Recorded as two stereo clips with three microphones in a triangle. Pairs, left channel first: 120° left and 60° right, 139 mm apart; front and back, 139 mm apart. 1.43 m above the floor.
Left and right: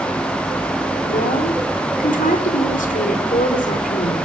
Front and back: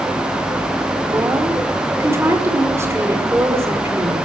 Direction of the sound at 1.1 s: 110° left.